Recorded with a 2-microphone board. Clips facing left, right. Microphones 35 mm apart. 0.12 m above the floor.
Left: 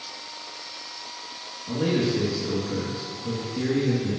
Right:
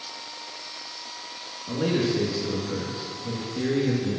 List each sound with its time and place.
1.7 s a man speaking: 10° right (ahead or behind), 1.7 m